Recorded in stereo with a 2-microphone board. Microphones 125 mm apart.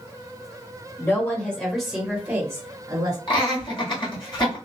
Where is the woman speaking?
20° left (ahead or behind), 1.2 m; by 3.2 s 30° right (ahead or behind), 1.2 m.